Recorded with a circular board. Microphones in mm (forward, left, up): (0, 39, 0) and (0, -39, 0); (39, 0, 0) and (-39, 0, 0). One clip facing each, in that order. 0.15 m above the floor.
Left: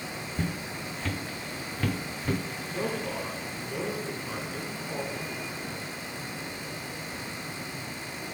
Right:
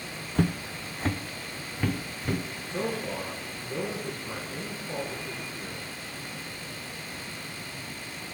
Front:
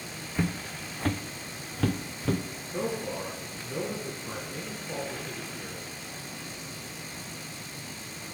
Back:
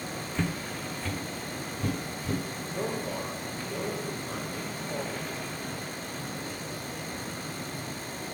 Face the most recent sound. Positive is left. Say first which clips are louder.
# right 1 dB, front 1 dB
turn(degrees=-35)